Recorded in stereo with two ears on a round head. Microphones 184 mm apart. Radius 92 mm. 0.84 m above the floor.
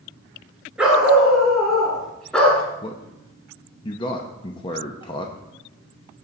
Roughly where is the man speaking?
Left.